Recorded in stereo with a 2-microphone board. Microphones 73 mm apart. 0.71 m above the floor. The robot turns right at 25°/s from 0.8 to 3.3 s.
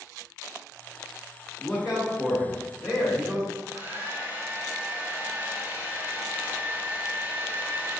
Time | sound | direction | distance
1.6 | a man speaking | 5° right (ahead or behind) | 1.1 m
3.5 | a hair dryer | 25° right (ahead or behind) | 0.6 m